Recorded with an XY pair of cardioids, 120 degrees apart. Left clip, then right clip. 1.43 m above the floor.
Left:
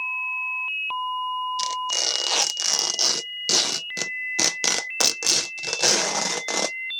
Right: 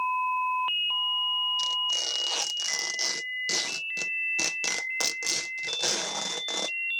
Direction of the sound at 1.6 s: 50° left.